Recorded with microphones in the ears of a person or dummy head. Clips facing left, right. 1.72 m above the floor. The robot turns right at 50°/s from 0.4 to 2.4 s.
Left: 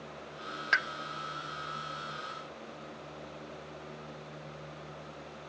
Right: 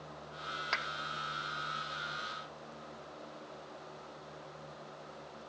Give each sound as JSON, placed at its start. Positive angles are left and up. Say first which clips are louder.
{"t": 0.7, "sound": "a pop", "louder": "left 5 dB", "side_deg": 20, "distance_m": 0.8}